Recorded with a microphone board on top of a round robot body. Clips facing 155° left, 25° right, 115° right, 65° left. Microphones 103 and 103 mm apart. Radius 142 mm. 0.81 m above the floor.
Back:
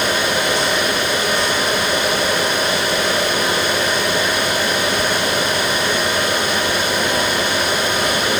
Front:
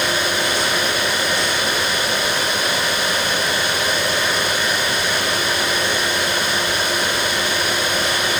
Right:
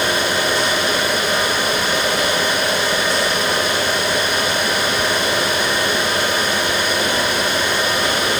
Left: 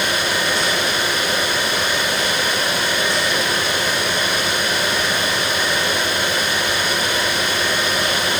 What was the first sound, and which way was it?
Only background noise.